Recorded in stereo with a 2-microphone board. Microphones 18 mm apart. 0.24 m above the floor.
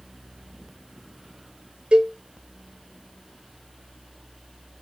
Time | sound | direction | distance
1.9 | a cowbell | 75° right (ahead or behind) | 0.7 m